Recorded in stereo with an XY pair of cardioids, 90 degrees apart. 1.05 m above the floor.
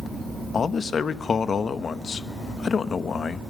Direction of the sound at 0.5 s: 50° left.